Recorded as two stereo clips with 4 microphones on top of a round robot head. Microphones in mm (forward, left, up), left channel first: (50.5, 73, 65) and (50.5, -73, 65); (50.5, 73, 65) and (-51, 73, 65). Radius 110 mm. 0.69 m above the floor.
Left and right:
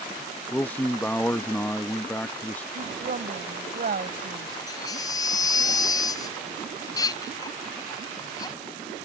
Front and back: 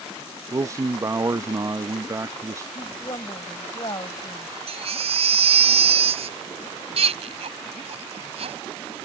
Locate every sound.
0.5 s a man speaking: 160° left
2.8 s a woman speaking: 65° right
4.7 s a baby crying: 160° left